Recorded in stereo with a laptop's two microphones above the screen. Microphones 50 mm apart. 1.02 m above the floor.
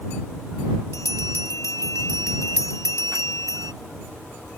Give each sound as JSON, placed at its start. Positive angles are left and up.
{"t": 0.9, "sound": "a bell", "side_deg": 85}